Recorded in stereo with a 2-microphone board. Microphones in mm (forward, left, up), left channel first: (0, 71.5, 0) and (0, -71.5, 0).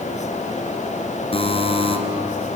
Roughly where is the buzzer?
Left.